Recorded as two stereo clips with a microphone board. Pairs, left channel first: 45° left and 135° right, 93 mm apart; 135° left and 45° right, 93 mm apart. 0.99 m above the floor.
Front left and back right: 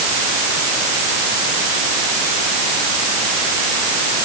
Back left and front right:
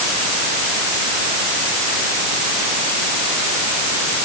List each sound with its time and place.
Only background noise.